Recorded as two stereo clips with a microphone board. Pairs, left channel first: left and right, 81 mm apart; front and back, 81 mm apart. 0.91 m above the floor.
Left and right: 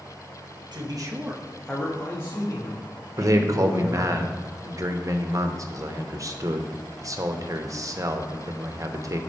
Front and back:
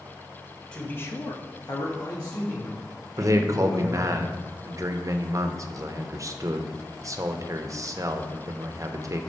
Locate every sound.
0.7 s a man speaking: 75° right, 1.2 m; by 4.2 s 50° left, 4.5 m
3.2 s a man speaking: 135° right, 0.7 m